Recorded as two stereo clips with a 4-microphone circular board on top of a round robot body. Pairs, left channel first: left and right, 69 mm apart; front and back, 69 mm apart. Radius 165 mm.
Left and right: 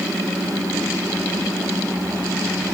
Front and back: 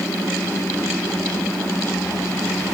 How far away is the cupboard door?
I don't hear a cupboard door.